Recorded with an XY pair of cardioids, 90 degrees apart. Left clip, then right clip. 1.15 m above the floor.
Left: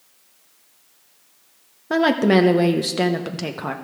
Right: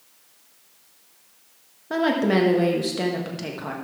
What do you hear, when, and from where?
1.9 s a woman speaking: 45° left, 0.9 m